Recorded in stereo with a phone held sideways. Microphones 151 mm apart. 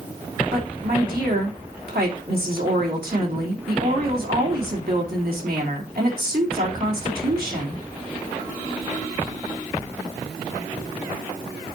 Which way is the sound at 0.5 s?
85° right.